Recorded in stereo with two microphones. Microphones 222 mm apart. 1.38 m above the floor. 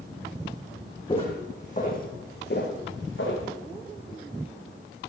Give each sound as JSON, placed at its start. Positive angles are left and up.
{"t": 1.1, "sound": "footsteps", "side_deg": 20, "distance_m": 3.5}